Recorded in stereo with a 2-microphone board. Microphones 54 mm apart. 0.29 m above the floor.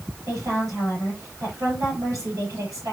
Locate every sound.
0.3 s a woman speaking: 75° right (ahead or behind), 7 m